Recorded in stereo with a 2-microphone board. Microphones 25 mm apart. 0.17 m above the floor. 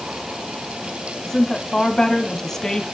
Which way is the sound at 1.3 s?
20° left (ahead or behind).